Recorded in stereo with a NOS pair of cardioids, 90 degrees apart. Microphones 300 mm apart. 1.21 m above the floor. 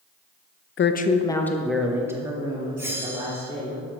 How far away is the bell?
About 3 m.